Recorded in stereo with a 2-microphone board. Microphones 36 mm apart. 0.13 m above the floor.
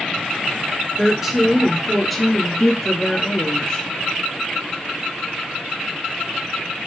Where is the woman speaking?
10° right (ahead or behind), 1.2 m; by 3.9 s 25° left (ahead or behind), 1.3 m.